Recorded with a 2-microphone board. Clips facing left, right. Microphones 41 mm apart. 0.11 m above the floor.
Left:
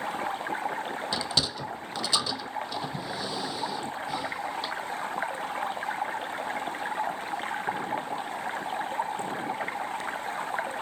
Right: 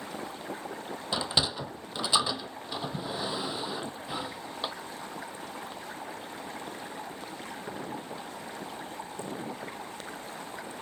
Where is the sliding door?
20° right (ahead or behind).